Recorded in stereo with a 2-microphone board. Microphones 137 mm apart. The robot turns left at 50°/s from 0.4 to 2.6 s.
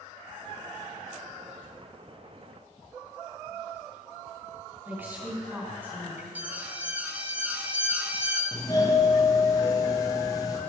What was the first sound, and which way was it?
A woman speaking, 15° right (ahead or behind).